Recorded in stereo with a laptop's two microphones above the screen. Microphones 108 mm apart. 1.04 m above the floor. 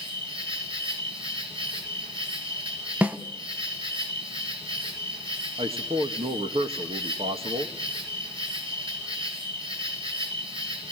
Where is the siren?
I don't hear a siren.